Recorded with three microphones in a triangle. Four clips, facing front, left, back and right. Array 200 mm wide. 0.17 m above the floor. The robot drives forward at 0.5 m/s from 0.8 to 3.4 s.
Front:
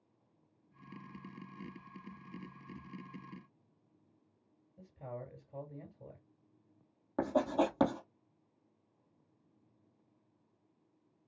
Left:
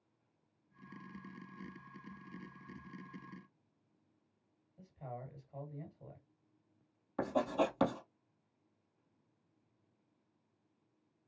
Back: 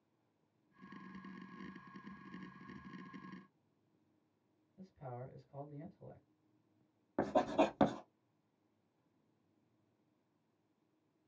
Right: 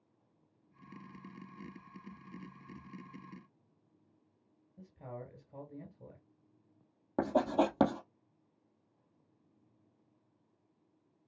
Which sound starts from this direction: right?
Writing, at 7.2 s.